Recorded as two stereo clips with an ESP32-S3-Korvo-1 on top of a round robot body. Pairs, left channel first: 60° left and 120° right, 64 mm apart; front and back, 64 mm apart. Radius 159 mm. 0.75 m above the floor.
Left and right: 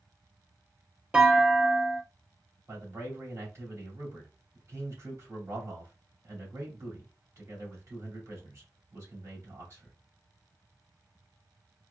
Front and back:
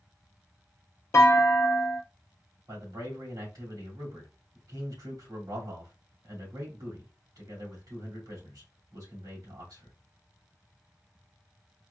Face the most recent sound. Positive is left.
turn(degrees=-165)